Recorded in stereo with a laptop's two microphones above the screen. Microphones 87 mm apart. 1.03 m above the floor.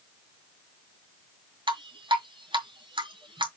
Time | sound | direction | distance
1.7 | dripping | 70° right (ahead or behind) | 2 m